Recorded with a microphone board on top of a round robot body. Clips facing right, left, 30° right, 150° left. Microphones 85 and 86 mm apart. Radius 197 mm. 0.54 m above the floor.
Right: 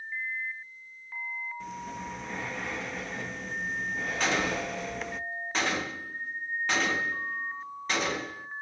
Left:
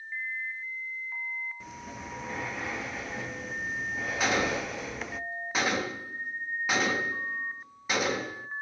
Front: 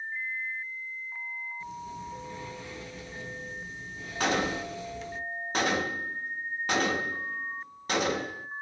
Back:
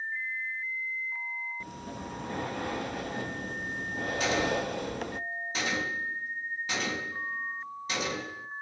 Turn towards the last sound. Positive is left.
turn(degrees=10)